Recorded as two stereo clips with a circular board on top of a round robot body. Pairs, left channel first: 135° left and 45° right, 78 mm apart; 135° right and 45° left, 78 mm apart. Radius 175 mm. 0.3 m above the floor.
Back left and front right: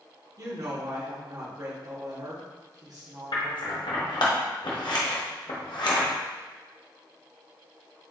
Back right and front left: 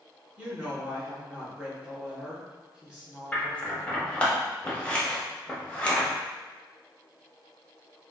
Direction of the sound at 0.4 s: 25° right.